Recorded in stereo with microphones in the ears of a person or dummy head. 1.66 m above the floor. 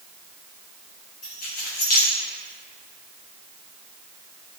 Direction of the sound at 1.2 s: 50° left (ahead or behind).